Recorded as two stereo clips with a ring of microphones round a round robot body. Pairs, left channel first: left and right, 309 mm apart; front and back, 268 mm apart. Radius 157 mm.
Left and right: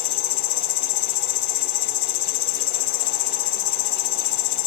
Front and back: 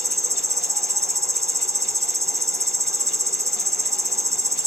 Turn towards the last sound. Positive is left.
turn(degrees=100)